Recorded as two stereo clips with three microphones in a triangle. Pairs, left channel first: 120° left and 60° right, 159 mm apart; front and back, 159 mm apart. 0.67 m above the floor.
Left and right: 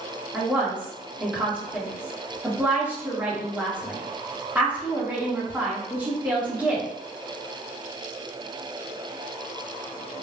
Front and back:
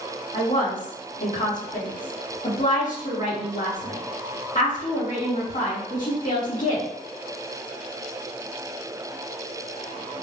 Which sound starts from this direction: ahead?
A woman speaking, at 0.3 s.